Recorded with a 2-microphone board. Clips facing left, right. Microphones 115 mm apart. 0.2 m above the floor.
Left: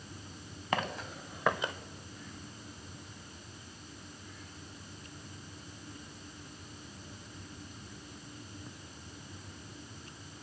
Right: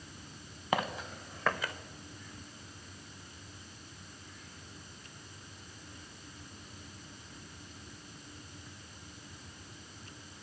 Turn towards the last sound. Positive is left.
turn(degrees=25)  # may be behind; listen again after turning